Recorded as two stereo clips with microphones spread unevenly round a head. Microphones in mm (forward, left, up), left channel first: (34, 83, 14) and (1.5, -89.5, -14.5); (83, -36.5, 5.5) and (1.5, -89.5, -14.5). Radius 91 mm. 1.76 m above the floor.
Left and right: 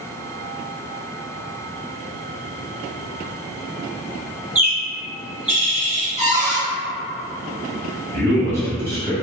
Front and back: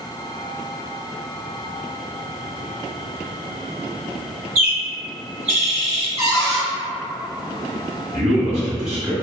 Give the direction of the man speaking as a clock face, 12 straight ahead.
7 o'clock.